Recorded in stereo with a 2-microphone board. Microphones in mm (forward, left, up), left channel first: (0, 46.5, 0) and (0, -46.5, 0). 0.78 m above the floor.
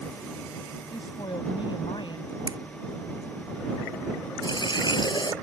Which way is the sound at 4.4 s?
50° left (ahead or behind).